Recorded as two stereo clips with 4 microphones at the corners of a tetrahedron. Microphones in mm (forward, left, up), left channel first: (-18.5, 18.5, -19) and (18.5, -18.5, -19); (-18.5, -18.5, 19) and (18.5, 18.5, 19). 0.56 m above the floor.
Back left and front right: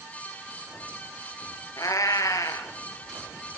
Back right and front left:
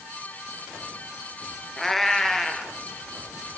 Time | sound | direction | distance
1.8 | a cat meowing | 145° left | 2.5 m